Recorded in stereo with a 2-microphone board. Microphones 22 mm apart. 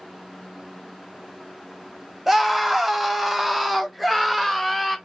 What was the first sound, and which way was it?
A scream, 10° right (ahead or behind).